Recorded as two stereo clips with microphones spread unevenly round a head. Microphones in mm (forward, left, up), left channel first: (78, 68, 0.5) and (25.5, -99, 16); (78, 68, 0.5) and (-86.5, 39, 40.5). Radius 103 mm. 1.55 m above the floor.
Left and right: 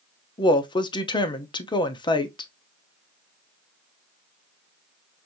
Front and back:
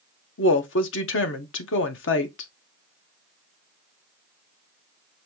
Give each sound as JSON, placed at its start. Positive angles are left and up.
{"t": 0.4, "sound": "a woman speaking", "azimuth_deg": 10, "distance_m": 0.8}